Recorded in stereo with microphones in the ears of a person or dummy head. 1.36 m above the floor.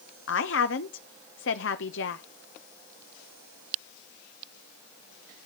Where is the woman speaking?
65° left (ahead or behind), 1.4 m.